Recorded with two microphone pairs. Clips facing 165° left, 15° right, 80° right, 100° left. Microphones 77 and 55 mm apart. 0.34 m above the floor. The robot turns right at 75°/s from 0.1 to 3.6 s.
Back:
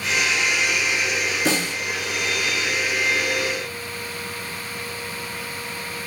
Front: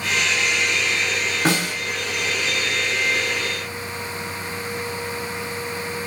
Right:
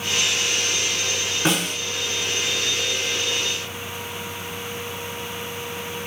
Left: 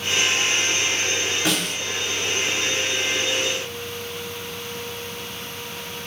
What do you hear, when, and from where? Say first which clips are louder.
1.4 s a snare drum: front 3 dB, right 5 dB; 20° right, 1.5 m; by 1.8 s 5° left, 1.5 m